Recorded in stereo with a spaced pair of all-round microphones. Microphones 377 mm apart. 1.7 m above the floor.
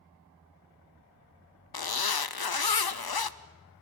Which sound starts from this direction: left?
A zipper, at 1.7 s.